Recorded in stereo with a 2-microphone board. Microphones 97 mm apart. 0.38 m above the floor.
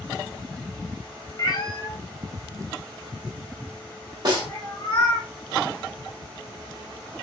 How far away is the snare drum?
About 1.6 m.